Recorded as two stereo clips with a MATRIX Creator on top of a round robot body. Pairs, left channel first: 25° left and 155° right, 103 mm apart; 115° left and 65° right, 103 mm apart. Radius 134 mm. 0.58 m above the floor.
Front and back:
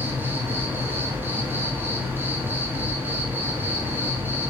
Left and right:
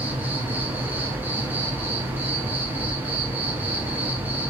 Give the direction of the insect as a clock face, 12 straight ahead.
4 o'clock.